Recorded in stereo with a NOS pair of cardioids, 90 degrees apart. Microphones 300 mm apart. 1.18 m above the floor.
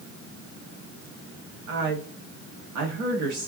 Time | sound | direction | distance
1.7 | a woman speaking | 60° right | 1.9 m